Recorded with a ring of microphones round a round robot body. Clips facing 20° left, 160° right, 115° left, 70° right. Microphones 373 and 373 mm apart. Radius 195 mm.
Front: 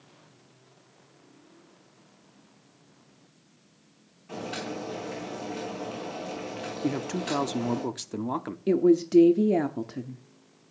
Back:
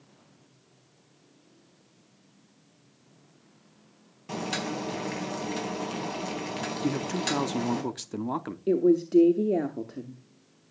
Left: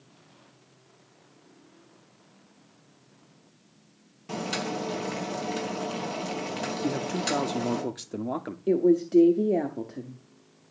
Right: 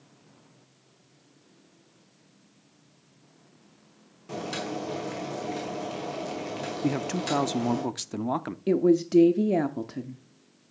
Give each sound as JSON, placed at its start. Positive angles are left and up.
{"t": 4.3, "sound": "boiling", "azimuth_deg": -175, "distance_m": 4.0}
{"t": 6.8, "sound": "a man speaking", "azimuth_deg": -75, "distance_m": 0.7}
{"t": 8.7, "sound": "a woman speaking", "azimuth_deg": -30, "distance_m": 0.9}